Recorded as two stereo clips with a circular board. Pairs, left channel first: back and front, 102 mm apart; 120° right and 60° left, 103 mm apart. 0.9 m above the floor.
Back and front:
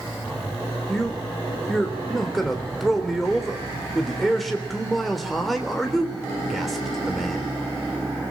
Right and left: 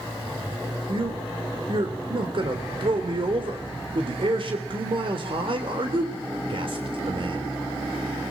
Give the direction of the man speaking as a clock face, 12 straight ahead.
9 o'clock.